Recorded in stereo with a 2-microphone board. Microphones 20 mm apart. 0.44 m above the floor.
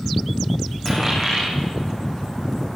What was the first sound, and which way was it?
A dropped coin, 10° left (ahead or behind).